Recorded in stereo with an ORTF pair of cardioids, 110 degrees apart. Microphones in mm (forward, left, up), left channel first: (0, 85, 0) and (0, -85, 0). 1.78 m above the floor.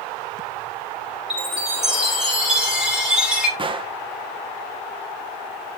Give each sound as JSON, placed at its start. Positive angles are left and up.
{"t": 1.3, "sound": "a chime", "azimuth_deg": -5, "distance_m": 7.0}
{"t": 3.6, "sound": "a gunshot", "azimuth_deg": -30, "distance_m": 1.5}